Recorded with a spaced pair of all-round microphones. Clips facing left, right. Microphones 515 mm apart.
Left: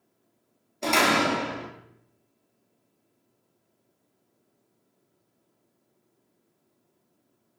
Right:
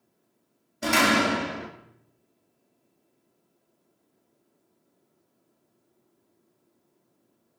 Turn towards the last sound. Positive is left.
turn(degrees=-35)  # may be behind; listen again after turning